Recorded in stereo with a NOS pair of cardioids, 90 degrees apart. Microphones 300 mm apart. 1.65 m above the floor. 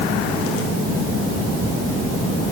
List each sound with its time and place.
Only background noise.